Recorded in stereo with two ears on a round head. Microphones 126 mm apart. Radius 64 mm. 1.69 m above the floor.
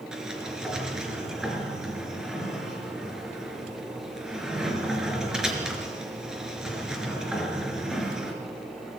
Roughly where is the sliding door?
Centre.